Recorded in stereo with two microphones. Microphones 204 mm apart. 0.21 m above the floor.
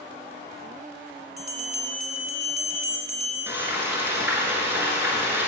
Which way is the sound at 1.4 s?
40° left (ahead or behind).